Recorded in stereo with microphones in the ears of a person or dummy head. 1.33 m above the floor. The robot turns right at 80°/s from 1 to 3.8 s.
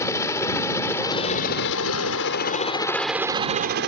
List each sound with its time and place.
0.0 s a helicopter: 15° left (ahead or behind); by 3.9 s 50° right (ahead or behind)